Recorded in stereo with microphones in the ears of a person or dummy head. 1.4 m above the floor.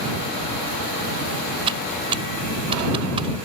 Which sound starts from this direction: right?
Typing on a keyboard, at 1.7 s.